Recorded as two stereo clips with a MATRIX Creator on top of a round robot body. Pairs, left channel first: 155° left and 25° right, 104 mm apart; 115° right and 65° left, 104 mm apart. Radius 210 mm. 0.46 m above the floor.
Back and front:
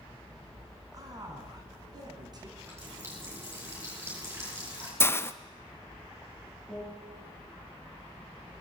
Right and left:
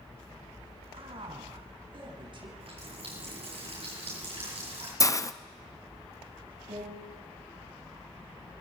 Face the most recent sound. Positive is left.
turn(degrees=70)